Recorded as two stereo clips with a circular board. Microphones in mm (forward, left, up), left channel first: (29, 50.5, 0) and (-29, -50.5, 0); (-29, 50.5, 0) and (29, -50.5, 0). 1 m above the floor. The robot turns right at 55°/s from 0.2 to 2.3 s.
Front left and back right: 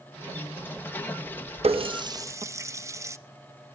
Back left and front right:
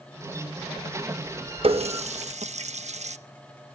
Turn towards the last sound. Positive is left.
turn(degrees=-55)